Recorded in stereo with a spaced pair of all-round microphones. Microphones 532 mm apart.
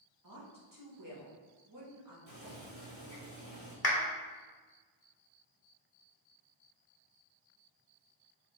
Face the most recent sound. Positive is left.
turn(degrees=45)  # may be behind; listen again after turning